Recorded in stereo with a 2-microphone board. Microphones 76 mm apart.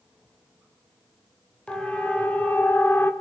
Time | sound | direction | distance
1.7 | a siren | 10° left (ahead or behind) | 3.5 m